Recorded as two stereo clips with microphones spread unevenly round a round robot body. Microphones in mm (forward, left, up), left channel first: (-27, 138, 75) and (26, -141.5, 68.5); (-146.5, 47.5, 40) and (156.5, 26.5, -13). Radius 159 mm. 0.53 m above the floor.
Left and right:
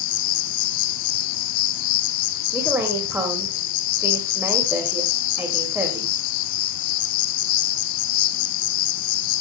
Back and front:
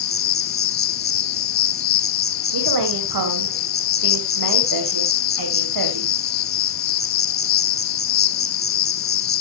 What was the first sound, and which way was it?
An insect, 125° left.